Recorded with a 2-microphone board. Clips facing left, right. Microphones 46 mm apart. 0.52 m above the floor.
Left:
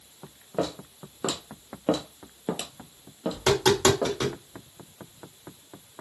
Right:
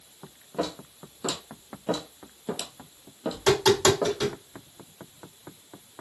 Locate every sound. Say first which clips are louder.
0.6 s footsteps: left 2 dB; 30° left (ahead or behind), 1.3 m; by 4.2 s centre (ahead or behind), 1.3 m
3.3 s tapping: right 1 dB; 30° left (ahead or behind), 1.7 m